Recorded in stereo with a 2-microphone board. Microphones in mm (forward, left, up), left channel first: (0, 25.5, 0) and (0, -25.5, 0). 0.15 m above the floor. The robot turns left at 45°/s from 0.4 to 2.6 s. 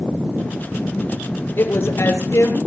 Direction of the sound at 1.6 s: 135° left.